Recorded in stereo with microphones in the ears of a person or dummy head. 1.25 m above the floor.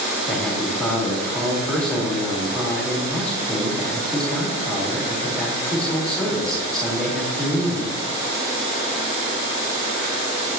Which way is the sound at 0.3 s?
Centre (ahead or behind).